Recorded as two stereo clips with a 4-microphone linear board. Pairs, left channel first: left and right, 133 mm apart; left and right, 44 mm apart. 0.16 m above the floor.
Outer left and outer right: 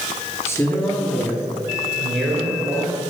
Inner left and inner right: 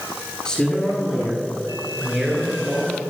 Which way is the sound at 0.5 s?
20° left (ahead or behind).